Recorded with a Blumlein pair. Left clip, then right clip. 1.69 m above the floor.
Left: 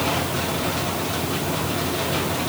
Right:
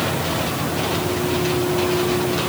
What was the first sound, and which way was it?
Only background noise.